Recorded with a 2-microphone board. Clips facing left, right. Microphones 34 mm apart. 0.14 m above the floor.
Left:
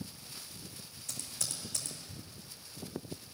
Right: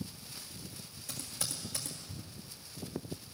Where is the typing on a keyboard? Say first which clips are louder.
Right 1 dB; 15° right (ahead or behind), 2 m.